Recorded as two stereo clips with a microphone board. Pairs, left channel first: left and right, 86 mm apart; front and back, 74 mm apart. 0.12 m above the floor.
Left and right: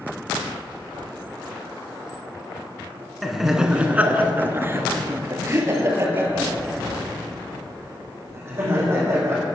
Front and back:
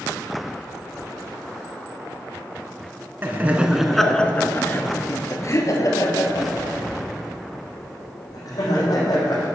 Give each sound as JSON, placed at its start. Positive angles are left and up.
{"t": 3.2, "sound": "laughter", "azimuth_deg": 180, "distance_m": 1.1}